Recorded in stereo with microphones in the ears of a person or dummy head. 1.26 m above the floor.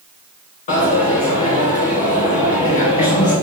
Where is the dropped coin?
35° left (ahead or behind), 2 m.